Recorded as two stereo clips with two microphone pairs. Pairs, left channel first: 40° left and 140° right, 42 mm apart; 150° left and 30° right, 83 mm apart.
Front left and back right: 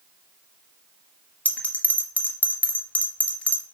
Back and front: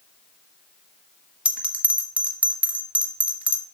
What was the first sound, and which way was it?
A bell, 35° left.